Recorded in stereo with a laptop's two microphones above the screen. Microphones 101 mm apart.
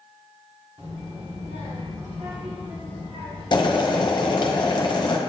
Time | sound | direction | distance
0.8 | a child speaking | 85° right | 1.8 m
3.5 | boiling | 45° left (ahead or behind) | 1.0 m